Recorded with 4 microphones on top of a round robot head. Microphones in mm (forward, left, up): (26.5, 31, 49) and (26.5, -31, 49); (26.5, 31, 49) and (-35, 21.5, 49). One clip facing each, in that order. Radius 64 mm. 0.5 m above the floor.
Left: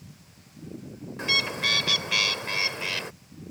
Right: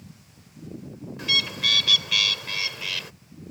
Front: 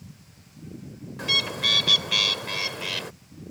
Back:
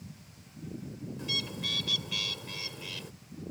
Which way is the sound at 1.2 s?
30° left.